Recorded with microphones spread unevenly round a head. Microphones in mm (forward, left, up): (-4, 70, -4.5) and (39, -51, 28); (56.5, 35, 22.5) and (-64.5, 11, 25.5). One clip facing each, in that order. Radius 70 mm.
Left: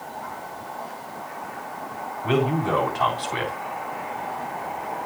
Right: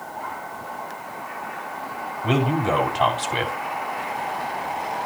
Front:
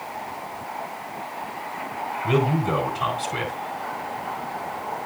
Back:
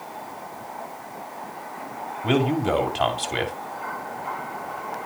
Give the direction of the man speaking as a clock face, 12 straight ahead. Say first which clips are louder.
Right 1 dB, back 1 dB; 5 o'clock.